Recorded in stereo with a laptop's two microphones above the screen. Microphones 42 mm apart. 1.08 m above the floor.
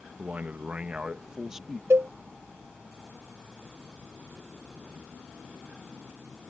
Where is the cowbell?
80° right.